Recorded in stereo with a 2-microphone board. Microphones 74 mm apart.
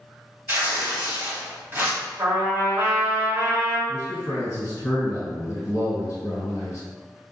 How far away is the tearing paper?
About 1.5 m.